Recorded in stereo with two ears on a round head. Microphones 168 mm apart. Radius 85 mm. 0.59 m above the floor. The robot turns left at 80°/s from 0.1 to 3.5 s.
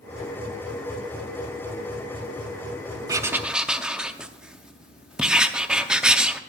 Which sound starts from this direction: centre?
Writing, at 3.1 s.